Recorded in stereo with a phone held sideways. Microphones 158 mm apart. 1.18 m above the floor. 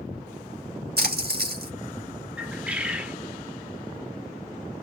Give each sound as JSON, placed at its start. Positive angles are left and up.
{"t": 1.0, "sound": "a splash", "side_deg": -75, "distance_m": 2.0}
{"t": 2.4, "sound": "a bird", "side_deg": -10, "distance_m": 0.9}